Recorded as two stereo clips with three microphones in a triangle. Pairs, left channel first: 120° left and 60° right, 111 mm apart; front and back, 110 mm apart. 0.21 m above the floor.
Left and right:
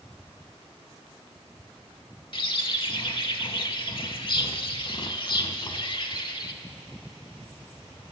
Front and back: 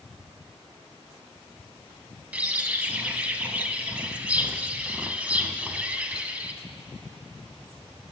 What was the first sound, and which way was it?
A bird, 105° left.